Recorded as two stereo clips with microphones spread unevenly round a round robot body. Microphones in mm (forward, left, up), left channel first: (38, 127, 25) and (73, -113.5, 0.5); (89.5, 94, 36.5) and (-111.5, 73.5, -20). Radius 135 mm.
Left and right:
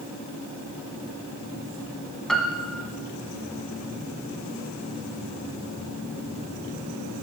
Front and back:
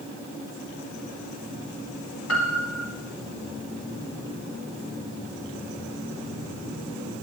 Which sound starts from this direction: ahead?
A piano, at 2.3 s.